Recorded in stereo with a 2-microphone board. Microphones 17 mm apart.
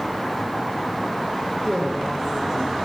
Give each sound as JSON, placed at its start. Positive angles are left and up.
{"t": 1.6, "sound": "a woman speaking", "side_deg": -35, "distance_m": 7.5}